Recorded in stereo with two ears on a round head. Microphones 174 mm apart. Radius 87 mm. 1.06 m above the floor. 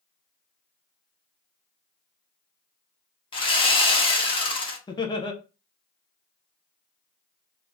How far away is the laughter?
About 0.6 m.